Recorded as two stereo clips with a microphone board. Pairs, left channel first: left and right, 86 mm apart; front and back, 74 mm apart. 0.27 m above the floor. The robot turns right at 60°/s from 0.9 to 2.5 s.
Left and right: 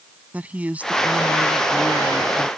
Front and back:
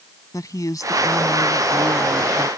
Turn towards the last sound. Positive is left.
turn(degrees=75)